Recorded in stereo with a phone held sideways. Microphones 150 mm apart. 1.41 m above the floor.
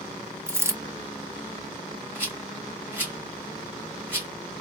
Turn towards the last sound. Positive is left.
turn(degrees=-15)  # may be behind; listen again after turning